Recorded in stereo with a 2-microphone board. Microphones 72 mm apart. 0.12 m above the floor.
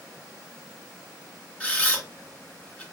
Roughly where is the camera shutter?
Centre.